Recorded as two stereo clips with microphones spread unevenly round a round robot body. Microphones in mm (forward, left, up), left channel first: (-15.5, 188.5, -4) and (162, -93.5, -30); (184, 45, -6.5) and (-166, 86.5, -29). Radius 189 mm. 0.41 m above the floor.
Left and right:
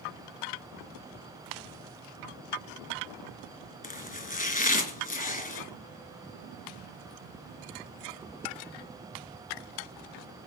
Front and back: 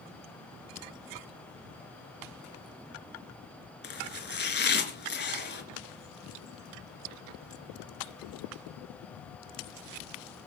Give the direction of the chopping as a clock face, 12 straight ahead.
10 o'clock.